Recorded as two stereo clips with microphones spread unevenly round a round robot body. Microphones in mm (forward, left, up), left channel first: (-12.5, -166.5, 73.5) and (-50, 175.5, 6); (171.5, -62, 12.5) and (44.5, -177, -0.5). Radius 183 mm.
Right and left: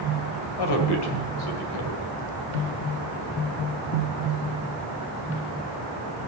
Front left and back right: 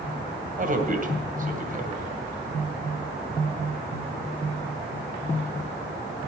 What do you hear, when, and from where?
0.6 s a man speaking: 105° right, 2.5 m